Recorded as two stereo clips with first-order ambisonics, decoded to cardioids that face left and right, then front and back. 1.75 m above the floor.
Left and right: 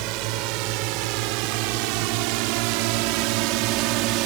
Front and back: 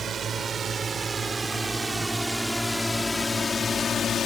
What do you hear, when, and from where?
0.0 s a drone: 115° right; by 4.2 s 60° right